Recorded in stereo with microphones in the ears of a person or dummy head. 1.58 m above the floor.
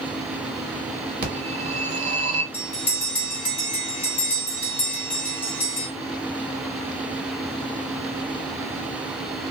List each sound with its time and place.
1.2 s a phone ringing: 45° right (ahead or behind), 1.6 m
2.5 s a bell: 10° left (ahead or behind), 0.9 m